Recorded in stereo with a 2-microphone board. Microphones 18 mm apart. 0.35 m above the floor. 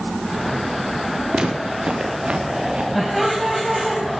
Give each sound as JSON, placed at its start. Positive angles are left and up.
{"t": 1.3, "sound": "footsteps", "side_deg": -70, "distance_m": 3.0}
{"t": 3.0, "sound": "laughter", "side_deg": -5, "distance_m": 2.5}